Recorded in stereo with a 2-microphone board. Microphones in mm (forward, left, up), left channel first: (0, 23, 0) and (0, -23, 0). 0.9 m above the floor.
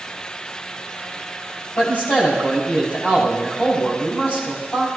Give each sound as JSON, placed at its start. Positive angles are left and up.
{"t": 1.8, "sound": "a man speaking", "side_deg": 40, "distance_m": 7.0}